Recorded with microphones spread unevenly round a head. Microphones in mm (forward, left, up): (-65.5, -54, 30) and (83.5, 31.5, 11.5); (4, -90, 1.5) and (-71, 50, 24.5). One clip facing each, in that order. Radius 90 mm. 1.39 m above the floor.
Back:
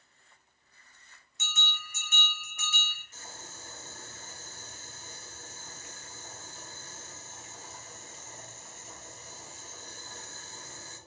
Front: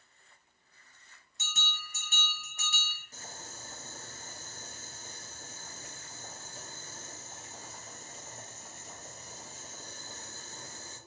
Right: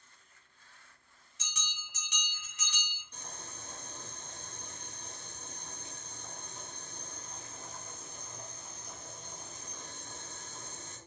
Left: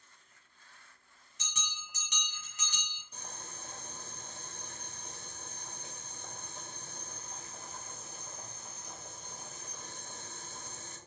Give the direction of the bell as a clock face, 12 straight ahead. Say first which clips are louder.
Back 2 dB, left 2 dB; 9 o'clock.